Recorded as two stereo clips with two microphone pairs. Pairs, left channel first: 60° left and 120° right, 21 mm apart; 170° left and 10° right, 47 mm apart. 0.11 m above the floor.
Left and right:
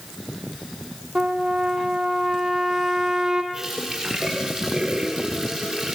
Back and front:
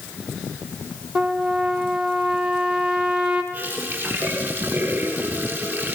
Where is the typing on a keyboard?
I don't hear typing on a keyboard.